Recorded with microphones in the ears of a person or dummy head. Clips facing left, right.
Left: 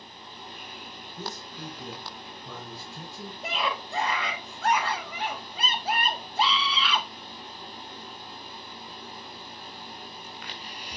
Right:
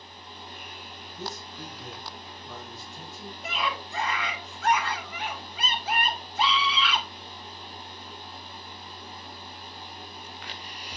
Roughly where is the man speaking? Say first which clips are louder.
Even; left.